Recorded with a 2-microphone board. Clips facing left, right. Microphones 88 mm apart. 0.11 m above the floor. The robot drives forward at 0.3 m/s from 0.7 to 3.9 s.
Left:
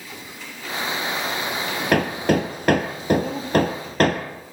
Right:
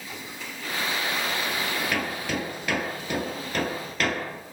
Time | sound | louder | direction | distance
1.9 | hammering | left 9 dB | 55° left (ahead or behind) | 1.8 m